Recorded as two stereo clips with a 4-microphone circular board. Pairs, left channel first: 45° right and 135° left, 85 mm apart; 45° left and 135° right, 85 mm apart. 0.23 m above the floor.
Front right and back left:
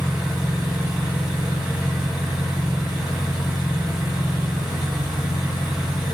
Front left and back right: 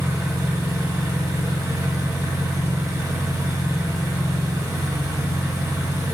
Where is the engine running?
145° right, 1.0 m.